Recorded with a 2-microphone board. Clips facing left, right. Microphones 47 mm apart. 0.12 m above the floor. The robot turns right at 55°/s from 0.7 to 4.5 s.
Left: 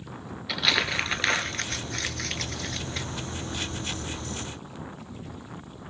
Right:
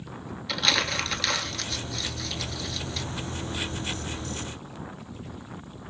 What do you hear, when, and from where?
0.5 s crumpling: 10° left (ahead or behind), 0.6 m; by 3.1 s 30° left (ahead or behind), 0.6 m